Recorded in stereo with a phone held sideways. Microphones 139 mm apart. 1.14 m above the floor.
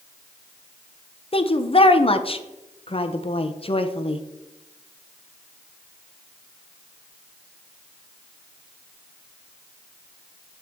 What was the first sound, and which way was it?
A woman speaking, 40° left (ahead or behind).